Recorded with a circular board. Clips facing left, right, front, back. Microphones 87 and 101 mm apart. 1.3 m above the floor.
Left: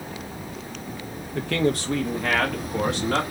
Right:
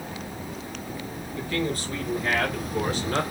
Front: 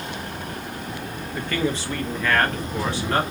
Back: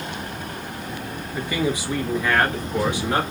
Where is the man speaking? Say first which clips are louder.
Left 5 dB, back 1 dB; 100° left, 0.8 m; by 3.2 s 105° left, 1.9 m.